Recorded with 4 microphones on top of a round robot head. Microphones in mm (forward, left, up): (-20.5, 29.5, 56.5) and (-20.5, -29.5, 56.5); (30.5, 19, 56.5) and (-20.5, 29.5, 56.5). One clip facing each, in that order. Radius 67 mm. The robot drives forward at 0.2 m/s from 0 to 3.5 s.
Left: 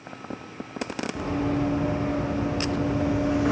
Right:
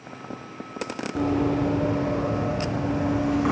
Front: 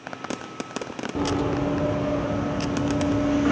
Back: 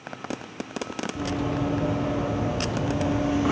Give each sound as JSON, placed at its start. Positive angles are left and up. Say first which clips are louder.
{"t": 1.1, "sound": "running footsteps", "louder": "right 4 dB, front 4 dB", "azimuth_deg": -40, "distance_m": 0.7}